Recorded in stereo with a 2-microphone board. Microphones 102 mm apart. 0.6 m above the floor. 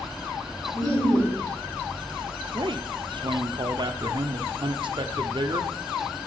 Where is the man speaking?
55° right (ahead or behind), 0.9 m.